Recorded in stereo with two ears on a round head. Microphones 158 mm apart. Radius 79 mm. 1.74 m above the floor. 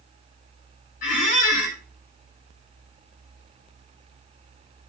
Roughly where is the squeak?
Left.